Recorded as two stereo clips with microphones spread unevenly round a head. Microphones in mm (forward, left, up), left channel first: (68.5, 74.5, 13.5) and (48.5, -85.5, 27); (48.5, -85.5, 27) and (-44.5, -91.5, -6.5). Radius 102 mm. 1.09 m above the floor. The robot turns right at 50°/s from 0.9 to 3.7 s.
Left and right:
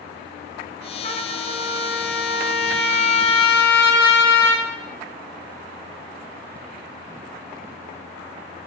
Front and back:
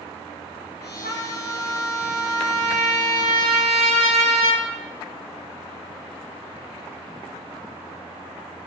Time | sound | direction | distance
1.0 | a trumpet | 35° left | 2.5 m